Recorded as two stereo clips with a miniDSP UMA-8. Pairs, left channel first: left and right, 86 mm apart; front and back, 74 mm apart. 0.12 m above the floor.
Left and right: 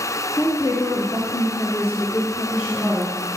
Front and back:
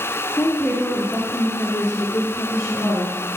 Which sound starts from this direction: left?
A woman speaking, at 0.4 s.